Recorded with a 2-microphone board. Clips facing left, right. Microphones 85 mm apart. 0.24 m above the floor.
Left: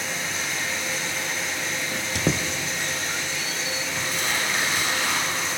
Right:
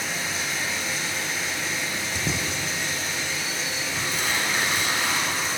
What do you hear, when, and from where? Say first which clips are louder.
0.0 s running water: even; centre (ahead or behind), 1.1 m
1.9 s a squeak: left 3 dB; 75° left (ahead or behind), 0.6 m
4.0 s crumpling: right 1 dB; 5° right (ahead or behind), 3.5 m